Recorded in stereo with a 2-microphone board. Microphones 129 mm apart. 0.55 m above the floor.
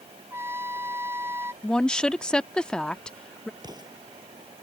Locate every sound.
0.3 s a trumpet: 20° right (ahead or behind)
1.6 s a woman speaking: 5° left (ahead or behind)
3.6 s an explosion: 35° right (ahead or behind)